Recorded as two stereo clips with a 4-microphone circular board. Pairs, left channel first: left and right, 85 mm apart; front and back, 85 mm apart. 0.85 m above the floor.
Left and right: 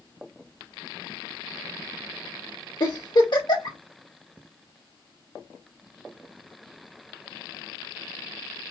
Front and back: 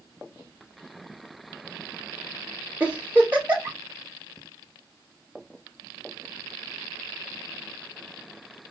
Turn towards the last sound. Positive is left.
turn(degrees=110)